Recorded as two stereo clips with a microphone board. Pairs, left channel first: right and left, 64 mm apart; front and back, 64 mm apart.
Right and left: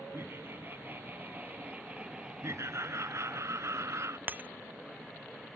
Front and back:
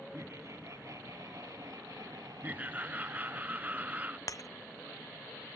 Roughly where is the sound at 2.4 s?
Behind left.